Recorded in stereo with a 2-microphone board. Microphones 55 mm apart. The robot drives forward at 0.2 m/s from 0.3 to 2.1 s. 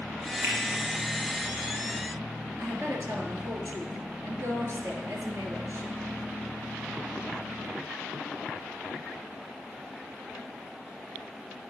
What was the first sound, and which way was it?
A finger snap, 40° right (ahead or behind).